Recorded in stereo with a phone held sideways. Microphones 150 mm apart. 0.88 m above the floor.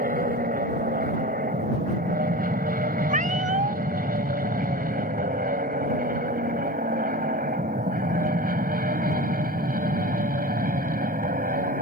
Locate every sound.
0.0 s an aircraft: 70° right (ahead or behind)
3.1 s a cat meowing: 60° right (ahead or behind)